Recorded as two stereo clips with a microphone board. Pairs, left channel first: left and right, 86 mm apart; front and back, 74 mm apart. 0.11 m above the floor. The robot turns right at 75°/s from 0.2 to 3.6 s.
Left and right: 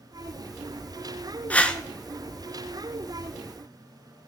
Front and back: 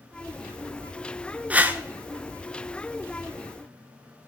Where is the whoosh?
140° left, 0.5 m; by 1.8 s 160° left, 0.5 m.